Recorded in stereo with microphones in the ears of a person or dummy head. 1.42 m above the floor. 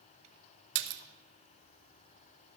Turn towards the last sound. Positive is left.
turn(degrees=-65)  # may be behind; listen again after turning